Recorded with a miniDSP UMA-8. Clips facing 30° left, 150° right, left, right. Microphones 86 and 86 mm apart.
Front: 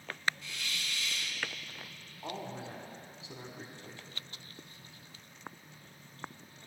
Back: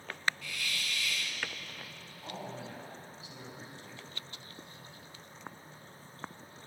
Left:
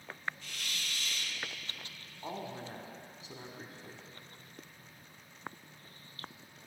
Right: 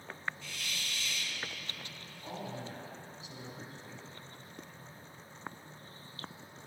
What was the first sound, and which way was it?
A hiss, 90° left.